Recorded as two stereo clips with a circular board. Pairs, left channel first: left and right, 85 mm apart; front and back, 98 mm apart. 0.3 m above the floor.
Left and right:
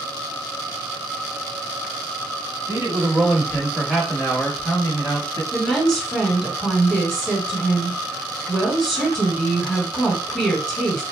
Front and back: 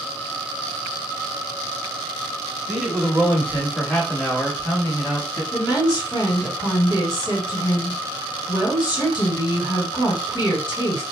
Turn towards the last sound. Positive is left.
turn(degrees=0)